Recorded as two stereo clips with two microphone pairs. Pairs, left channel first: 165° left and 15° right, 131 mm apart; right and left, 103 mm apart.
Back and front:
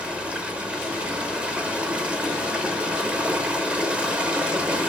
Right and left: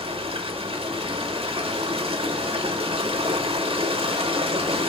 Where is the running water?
65° left, 0.8 m.